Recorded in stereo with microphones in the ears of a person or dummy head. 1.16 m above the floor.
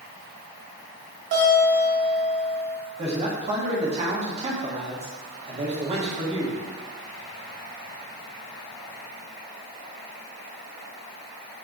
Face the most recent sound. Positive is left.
turn(degrees=-35)  # may be behind; listen again after turning